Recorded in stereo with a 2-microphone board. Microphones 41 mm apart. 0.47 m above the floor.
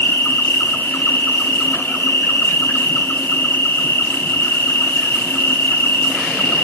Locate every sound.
0.0 s an insect: 65° left (ahead or behind), 2.5 m